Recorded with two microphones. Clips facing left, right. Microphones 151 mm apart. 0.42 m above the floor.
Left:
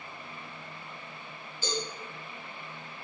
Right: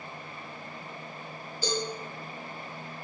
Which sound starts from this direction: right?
A cowbell, at 1.6 s.